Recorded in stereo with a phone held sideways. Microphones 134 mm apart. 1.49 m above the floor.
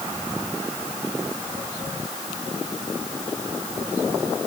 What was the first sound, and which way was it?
Only background noise.